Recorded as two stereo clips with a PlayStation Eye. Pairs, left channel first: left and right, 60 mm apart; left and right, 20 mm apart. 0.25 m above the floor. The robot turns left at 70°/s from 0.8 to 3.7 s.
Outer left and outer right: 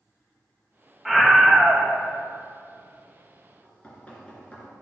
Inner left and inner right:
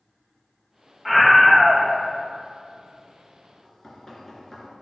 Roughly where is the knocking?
Left.